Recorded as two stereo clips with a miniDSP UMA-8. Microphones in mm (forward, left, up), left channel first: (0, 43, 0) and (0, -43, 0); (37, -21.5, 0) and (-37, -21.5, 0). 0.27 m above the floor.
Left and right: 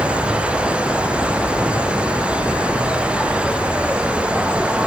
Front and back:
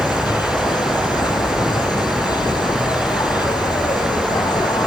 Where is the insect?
10° right.